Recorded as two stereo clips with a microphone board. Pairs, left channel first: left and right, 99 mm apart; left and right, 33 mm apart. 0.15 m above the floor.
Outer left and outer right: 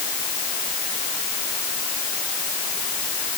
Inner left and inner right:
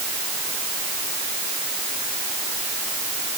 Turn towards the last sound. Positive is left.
No sound to turn to.